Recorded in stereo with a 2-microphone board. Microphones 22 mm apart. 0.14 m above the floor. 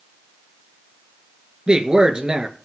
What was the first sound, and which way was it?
A man speaking, 45° right (ahead or behind).